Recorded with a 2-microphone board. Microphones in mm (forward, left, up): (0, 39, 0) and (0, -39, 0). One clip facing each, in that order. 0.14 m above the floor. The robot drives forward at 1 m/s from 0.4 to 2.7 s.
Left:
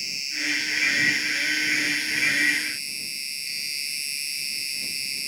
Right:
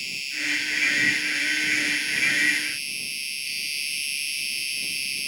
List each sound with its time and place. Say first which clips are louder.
0.0 s an insect: even; 20° left (ahead or behind)